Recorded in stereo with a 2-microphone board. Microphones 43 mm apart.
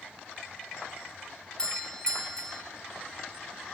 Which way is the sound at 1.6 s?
20° left (ahead or behind).